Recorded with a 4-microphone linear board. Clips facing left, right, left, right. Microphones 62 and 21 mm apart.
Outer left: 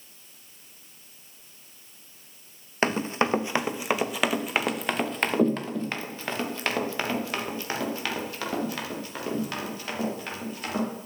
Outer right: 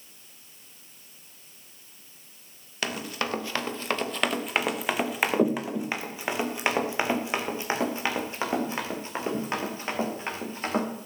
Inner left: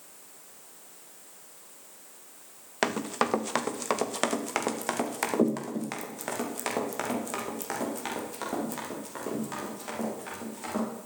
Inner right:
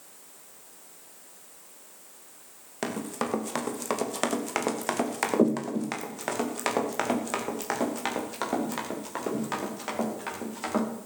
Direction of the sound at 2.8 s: 35° left (ahead or behind).